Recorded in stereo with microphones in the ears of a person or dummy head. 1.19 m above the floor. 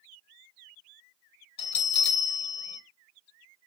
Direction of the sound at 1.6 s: 35° left (ahead or behind).